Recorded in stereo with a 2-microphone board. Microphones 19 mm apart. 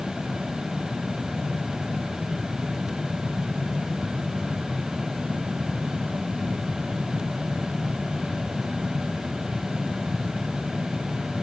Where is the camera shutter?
I don't hear a camera shutter.